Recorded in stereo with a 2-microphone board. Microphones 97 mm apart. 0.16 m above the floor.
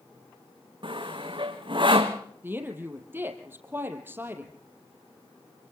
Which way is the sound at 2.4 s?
20° right (ahead or behind).